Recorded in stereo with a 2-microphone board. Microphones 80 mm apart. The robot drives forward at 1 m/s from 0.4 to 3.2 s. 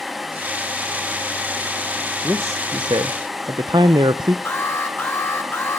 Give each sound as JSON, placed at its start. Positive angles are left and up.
{"t": 2.2, "sound": "a man speaking", "side_deg": -30, "distance_m": 0.9}
{"t": 4.5, "sound": "an alarm", "side_deg": 30, "distance_m": 2.0}